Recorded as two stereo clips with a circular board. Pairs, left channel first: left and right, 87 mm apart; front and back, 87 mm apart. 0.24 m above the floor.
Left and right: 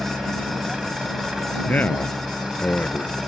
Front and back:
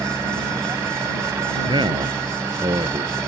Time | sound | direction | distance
0.0 | a helicopter | 170° right | ?
1.7 | a man speaking | 160° left | ?